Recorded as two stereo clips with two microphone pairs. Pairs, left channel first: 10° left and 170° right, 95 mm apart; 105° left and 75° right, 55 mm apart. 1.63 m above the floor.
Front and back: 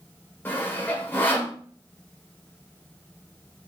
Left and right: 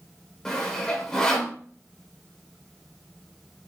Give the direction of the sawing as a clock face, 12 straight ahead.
10 o'clock.